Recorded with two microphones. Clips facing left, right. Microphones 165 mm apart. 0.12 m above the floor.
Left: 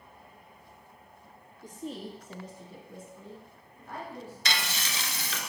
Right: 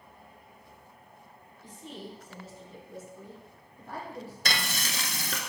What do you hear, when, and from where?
1.6 s a woman speaking: 45° left (ahead or behind), 1.9 m; by 4.3 s 40° right (ahead or behind), 2.5 m
4.5 s frying: 45° right (ahead or behind), 0.9 m